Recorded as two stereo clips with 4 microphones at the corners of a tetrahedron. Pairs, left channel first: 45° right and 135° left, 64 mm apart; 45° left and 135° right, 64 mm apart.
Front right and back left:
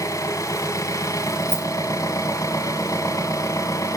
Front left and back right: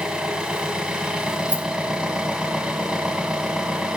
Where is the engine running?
60° right, 2.0 m.